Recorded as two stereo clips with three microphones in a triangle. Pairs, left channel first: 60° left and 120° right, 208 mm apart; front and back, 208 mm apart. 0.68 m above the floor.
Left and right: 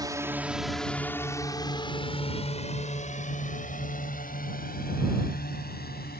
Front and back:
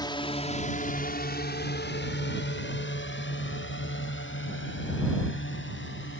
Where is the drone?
60° right; by 6.2 s 20° left.